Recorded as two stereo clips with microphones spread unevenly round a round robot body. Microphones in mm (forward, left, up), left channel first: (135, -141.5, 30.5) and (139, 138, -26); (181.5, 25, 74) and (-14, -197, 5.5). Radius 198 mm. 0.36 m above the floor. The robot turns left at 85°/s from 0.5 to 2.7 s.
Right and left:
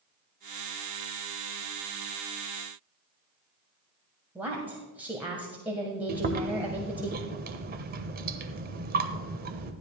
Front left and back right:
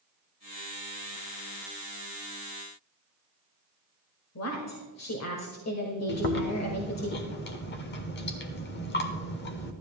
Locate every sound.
4.3 s a woman speaking: 10° left, 1.8 m
6.1 s chewing: 105° left, 0.9 m